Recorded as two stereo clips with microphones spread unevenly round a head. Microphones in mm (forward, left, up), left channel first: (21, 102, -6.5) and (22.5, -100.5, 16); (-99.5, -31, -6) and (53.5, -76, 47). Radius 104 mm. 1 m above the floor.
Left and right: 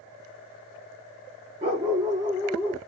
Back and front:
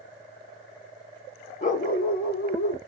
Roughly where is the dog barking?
Behind right.